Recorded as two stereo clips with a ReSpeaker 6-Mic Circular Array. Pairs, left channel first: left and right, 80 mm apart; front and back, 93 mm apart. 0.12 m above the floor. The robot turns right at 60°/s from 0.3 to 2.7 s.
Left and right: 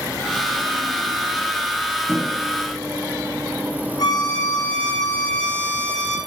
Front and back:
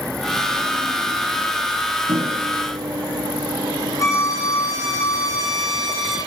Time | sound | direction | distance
2.1 | a microwave | 170° left | 3 m
4.0 | a violin | 55° left | 5 m